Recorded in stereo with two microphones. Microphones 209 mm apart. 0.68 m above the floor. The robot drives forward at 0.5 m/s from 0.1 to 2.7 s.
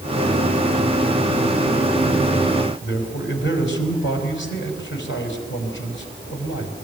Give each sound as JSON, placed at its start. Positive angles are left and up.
{"t": 2.8, "sound": "a man speaking", "side_deg": 70, "distance_m": 4.5}